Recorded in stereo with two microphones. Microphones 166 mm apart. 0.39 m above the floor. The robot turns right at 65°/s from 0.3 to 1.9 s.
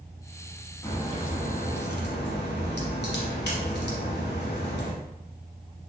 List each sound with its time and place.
0.8 s a crack: 15° left, 0.7 m; by 4.9 s 85° left, 0.7 m